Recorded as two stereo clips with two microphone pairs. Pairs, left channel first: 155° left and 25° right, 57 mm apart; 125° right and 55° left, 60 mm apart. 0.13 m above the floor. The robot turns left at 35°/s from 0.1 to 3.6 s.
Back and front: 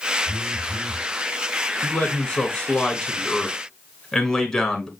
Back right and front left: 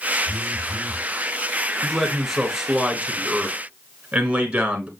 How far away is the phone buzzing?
About 4.5 m.